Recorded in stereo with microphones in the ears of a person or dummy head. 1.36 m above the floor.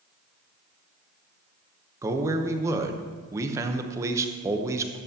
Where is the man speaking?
15° right (ahead or behind), 0.8 m.